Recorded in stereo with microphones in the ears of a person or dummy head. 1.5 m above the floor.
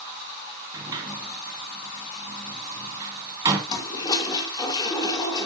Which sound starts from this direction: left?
A toilet flushing, at 3.7 s.